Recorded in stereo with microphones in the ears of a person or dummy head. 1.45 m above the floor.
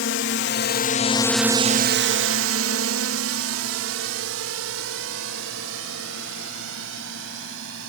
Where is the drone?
65° left (ahead or behind); by 7.9 s 80° right.